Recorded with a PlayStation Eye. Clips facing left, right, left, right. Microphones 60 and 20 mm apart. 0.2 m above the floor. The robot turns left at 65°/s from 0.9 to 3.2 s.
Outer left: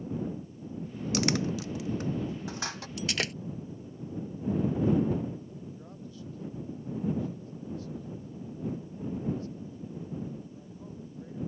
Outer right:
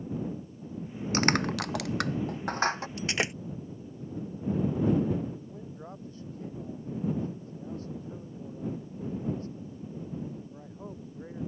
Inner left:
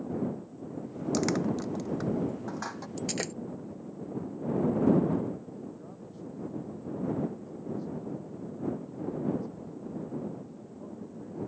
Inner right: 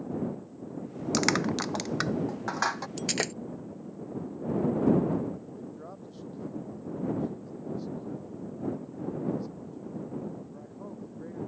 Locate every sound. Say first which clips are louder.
1.1 s crushing: outer right 3 dB, inner right 3 dB; 40° right (ahead or behind); by 2.9 s 30° right (ahead or behind)
3.0 s breaking glass: outer left 1 dB, inner right 2 dB; 40° right (ahead or behind); by 3.3 s 25° right (ahead or behind)
5.4 s a man speaking: outer right 1 dB, inner right 1 dB; 40° right (ahead or behind)